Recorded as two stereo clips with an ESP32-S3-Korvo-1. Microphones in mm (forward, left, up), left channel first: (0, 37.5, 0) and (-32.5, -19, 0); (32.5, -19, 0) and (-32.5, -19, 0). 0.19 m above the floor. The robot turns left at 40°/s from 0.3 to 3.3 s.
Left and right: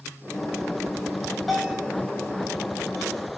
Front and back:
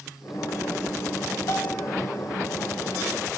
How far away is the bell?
About 6 m.